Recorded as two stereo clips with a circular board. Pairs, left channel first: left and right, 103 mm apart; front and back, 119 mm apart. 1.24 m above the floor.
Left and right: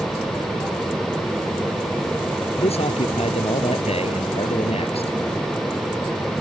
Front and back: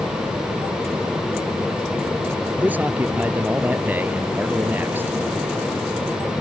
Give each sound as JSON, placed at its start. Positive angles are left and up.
{"t": 2.6, "sound": "a man speaking", "azimuth_deg": 105}